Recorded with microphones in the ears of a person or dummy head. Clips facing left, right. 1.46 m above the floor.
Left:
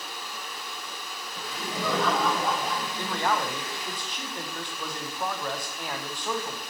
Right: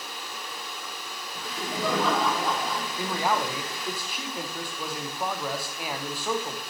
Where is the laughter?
15° right (ahead or behind), 4 m; by 3.8 s 10° left (ahead or behind), 5.5 m.